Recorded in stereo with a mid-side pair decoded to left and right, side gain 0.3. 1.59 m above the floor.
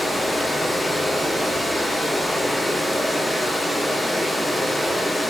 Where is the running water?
25° left, 3.5 m.